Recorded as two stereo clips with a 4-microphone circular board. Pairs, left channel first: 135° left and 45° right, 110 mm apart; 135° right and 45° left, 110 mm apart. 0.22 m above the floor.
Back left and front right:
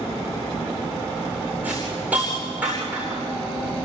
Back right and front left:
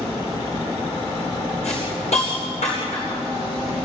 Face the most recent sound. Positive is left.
turn(degrees=-120)